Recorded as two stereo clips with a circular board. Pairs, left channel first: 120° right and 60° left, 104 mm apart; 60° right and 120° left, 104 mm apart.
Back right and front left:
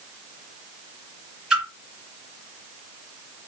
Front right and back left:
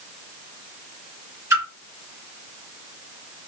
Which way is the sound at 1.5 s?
140° left.